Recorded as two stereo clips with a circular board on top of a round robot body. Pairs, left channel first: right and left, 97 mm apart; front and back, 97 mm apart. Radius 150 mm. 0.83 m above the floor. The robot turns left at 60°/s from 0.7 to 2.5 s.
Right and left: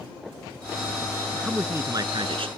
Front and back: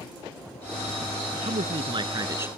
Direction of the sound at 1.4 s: 175° left.